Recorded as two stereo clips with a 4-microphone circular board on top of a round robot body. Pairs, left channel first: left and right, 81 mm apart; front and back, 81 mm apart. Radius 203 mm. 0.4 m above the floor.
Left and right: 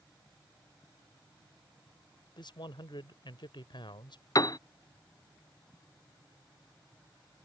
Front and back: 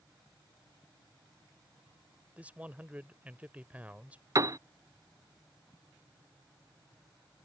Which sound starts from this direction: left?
A man speaking, at 2.4 s.